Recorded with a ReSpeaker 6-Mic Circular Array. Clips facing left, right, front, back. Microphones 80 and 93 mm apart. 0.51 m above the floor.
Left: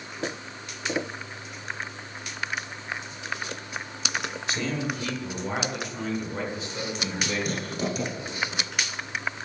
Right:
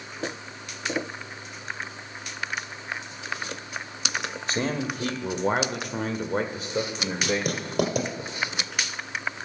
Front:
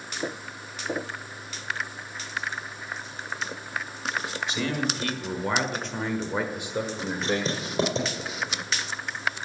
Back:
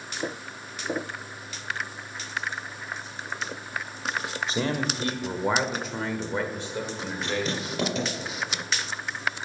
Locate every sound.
4.5 s a man speaking: 135° right, 1.7 m; by 8.2 s 40° right, 2 m
7.2 s writing: 65° right, 4 m